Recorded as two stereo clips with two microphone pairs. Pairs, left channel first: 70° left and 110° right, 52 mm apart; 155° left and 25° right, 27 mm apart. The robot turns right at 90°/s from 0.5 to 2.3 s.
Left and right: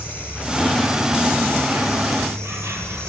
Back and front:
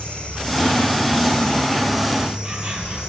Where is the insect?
120° left, 9 m; by 3.1 s 80° right, 9 m.